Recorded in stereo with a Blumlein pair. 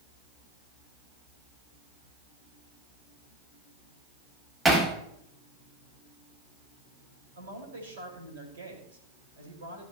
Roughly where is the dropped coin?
No dropped coin in this recording.